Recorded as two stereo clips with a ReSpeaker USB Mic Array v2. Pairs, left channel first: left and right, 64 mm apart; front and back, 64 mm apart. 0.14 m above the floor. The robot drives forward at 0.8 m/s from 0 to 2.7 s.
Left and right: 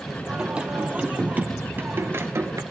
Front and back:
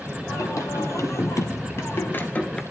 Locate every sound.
0.3 s singing: 20° right, 2.5 m; by 2.6 s 70° right, 0.9 m